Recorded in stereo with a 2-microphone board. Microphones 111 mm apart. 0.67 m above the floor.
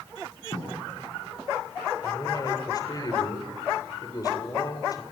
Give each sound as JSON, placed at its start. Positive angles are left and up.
{"t": 0.5, "sound": "writing", "side_deg": 85, "distance_m": 9.0}
{"t": 2.0, "sound": "a man speaking", "side_deg": 35, "distance_m": 3.0}